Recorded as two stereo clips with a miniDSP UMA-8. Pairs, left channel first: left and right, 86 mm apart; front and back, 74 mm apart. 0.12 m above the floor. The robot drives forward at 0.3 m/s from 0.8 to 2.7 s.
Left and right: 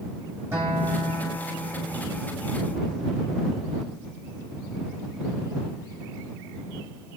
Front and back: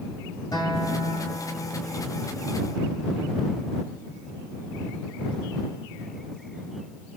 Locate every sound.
0.5 s a guitar: 25° right, 6.5 m; by 2.2 s 30° right, 6 m